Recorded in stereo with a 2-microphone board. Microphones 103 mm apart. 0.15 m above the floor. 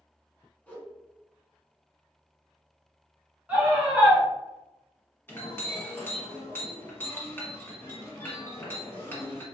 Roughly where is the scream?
Centre.